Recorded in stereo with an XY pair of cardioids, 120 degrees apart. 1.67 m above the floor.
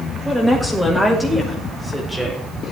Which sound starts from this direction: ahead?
A woman speaking, at 0.2 s.